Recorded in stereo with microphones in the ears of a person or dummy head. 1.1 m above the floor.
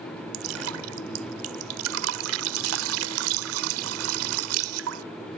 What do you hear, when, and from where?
0.3 s dripping: 80° right